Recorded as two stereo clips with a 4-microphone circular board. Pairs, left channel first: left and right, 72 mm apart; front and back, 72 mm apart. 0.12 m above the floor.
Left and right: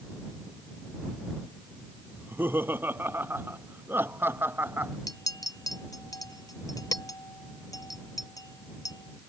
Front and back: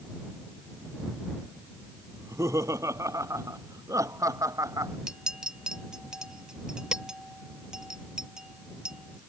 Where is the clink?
100° left.